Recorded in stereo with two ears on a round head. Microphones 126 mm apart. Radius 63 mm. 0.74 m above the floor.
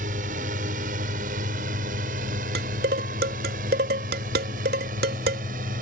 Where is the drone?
60° right (ahead or behind); by 5.8 s 65° right (ahead or behind).